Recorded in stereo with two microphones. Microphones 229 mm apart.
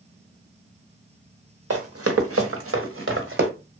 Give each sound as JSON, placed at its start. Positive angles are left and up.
{"t": 1.7, "sound": "running footsteps", "side_deg": -85, "distance_m": 1.1}